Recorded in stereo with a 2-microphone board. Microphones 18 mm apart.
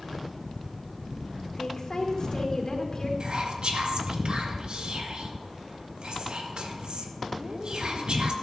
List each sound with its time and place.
1.5 s a woman speaking: 45° left (ahead or behind), 2.5 m
3.2 s whispering: 70° right (ahead or behind), 2.0 m